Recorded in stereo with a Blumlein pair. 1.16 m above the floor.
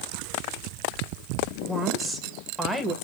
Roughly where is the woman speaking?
Ahead.